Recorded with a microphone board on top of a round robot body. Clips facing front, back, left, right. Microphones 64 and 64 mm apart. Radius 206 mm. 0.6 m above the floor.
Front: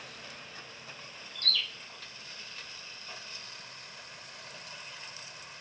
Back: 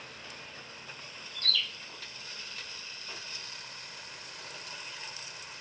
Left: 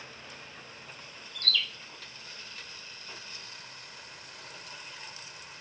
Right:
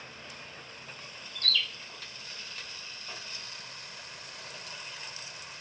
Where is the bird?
25° right, 1.2 m.